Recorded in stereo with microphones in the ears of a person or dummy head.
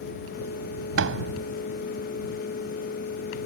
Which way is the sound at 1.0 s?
85° right.